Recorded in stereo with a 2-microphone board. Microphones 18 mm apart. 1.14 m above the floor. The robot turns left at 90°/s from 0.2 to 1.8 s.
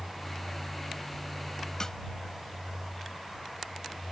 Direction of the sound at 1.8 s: 30° left (ahead or behind).